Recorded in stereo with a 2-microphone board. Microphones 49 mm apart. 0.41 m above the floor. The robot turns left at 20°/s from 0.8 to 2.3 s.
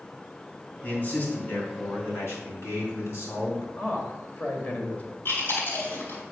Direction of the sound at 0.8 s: 35° left (ahead or behind).